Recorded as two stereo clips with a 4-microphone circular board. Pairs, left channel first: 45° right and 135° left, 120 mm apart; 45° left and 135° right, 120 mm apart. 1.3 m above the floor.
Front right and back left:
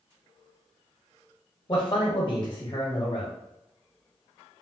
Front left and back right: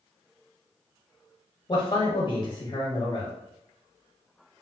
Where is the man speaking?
5° left, 0.8 m.